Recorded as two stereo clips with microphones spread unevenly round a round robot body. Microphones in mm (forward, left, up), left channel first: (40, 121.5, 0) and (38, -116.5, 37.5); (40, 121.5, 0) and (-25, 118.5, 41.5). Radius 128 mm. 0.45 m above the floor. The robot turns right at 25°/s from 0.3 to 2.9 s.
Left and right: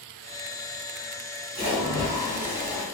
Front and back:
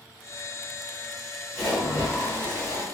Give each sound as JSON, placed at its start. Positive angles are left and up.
{"t": 1.6, "sound": "a splash", "azimuth_deg": -30, "distance_m": 1.5}